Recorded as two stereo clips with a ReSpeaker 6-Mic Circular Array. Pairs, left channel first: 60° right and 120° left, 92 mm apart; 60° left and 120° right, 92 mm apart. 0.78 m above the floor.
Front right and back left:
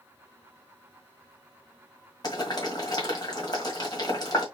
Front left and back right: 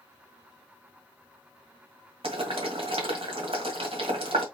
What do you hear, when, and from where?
2.2 s boiling: 105° right, 1.7 m